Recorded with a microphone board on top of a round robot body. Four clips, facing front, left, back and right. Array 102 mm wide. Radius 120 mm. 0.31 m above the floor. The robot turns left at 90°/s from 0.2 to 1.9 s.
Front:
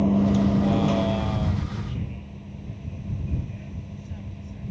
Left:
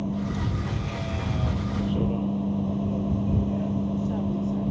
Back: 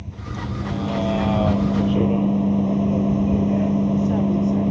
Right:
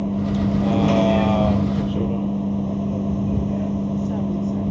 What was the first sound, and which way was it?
A vehicle, 20° right.